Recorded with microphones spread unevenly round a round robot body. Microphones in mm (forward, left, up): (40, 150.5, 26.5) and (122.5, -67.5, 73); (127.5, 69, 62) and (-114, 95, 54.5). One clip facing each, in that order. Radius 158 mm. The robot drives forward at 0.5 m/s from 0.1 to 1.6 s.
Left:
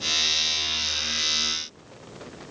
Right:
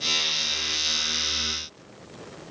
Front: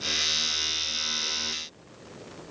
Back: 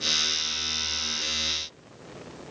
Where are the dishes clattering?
I don't hear dishes clattering.